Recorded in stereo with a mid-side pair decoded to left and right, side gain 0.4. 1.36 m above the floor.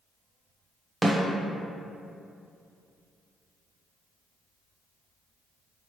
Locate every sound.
1.0 s a snare drum: 25° right, 0.8 m